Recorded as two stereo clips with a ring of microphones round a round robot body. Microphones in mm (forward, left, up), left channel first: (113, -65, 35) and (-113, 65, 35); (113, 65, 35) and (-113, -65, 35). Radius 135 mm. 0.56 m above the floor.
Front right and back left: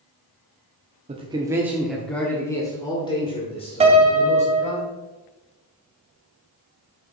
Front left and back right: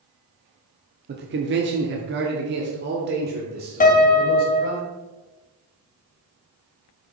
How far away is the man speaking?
About 0.8 m.